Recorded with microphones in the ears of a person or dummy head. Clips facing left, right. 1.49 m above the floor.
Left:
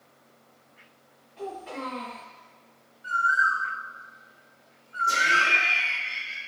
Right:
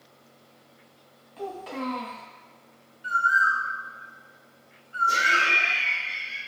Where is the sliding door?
I don't hear a sliding door.